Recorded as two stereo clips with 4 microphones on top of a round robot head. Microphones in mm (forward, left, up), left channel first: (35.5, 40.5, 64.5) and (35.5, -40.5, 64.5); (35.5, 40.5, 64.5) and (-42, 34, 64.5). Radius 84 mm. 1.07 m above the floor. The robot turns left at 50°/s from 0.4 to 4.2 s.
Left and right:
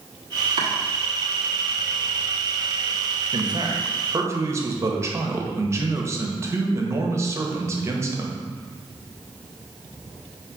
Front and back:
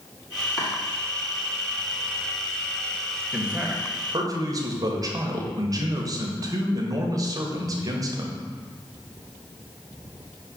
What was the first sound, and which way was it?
Chopping, 95° right.